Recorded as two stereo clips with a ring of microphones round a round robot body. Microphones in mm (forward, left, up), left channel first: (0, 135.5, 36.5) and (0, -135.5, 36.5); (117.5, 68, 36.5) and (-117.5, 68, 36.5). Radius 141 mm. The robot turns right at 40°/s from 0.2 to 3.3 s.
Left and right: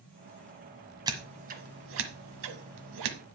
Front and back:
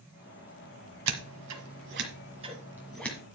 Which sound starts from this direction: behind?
Scissors, at 1.1 s.